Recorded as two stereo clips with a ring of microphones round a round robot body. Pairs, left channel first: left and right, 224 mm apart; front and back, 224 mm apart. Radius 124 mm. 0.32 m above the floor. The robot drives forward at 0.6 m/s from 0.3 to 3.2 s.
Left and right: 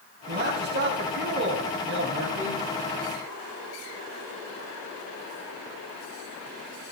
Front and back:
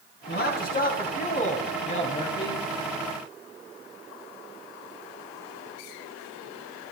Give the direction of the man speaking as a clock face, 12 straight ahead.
1 o'clock.